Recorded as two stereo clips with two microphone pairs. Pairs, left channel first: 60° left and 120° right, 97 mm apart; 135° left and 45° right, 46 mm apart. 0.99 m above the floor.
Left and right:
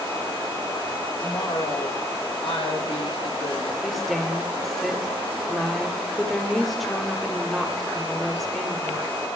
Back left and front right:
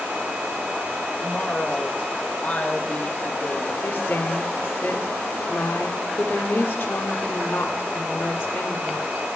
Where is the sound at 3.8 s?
150° left, 1.4 m.